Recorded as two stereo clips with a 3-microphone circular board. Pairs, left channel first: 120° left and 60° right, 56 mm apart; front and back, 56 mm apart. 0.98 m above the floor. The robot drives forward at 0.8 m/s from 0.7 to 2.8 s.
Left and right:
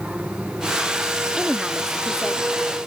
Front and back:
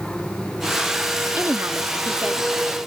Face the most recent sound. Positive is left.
turn(degrees=-155)